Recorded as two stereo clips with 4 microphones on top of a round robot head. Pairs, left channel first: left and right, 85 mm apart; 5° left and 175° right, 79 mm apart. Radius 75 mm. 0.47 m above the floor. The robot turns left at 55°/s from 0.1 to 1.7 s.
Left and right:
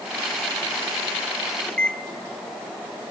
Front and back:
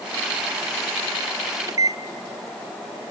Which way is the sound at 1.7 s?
165° left.